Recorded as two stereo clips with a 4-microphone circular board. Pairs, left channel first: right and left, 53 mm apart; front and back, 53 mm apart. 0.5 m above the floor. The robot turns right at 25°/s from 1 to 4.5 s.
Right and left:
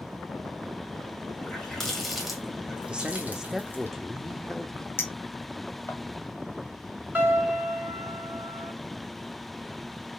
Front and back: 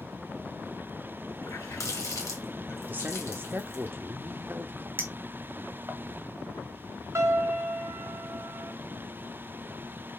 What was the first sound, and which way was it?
A running tap, 15° right.